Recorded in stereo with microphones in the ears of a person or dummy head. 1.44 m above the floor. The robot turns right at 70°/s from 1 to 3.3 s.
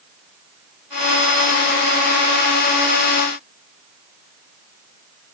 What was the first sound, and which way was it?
Only background noise.